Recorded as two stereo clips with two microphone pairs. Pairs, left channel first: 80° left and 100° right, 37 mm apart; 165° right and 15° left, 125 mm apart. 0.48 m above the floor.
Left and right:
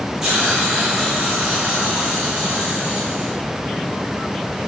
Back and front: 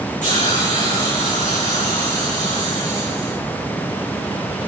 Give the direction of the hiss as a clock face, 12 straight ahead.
6 o'clock.